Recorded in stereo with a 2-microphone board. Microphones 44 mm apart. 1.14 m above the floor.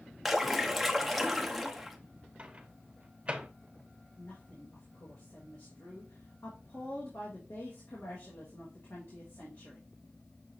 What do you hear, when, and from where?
0.2 s a splash: centre (ahead or behind), 0.7 m
2.4 s a microwave: 25° right (ahead or behind), 0.7 m
4.2 s a woman speaking: 65° left (ahead or behind), 1.7 m